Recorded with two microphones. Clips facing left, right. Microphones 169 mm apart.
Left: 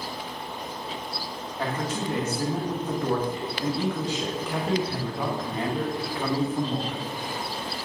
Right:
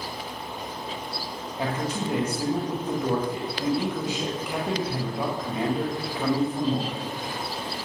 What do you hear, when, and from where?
1.6 s a man speaking: 15° right (ahead or behind), 1.3 m